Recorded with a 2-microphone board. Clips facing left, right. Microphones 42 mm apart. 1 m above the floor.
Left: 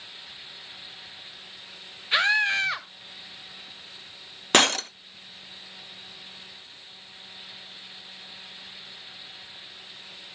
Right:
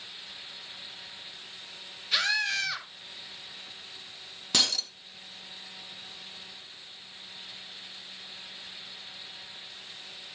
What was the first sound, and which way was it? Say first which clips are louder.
A scream: left 6 dB; 30° left (ahead or behind).